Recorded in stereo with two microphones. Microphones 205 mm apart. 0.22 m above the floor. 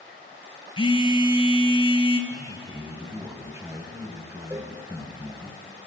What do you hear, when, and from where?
0.8 s a phone buzzing: 25° left (ahead or behind), 0.9 m
2.3 s a man speaking: 15° right (ahead or behind), 1.4 m
4.5 s a cowbell: 15° right (ahead or behind), 0.7 m